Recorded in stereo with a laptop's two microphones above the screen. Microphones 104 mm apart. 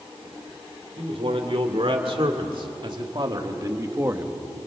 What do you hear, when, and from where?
1.0 s a man speaking: 65° right (ahead or behind), 3.5 m; by 4.4 s 15° right (ahead or behind), 1.1 m